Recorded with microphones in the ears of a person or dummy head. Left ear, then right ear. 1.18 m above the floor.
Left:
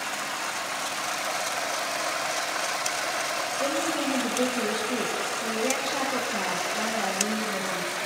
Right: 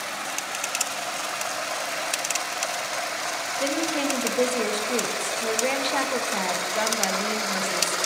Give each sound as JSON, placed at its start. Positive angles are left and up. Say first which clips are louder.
{"t": 3.6, "sound": "a woman speaking", "louder": "right 3 dB", "side_deg": -65, "distance_m": 1.6}